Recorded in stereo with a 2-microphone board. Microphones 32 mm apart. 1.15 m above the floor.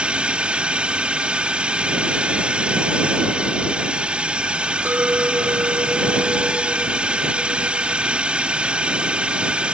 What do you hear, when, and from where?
0.0 s a drone: 35° right (ahead or behind)
4.8 s a clink: 85° right